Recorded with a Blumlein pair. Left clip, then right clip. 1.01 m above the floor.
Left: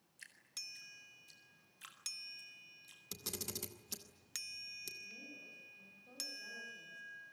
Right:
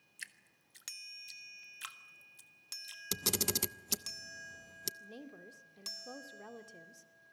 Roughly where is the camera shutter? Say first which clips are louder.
Right 11 dB; ahead right.